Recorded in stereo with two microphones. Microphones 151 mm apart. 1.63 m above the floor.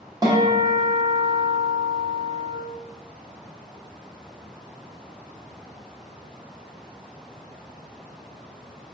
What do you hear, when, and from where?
0.2 s a guitar: 25° right (ahead or behind), 0.8 m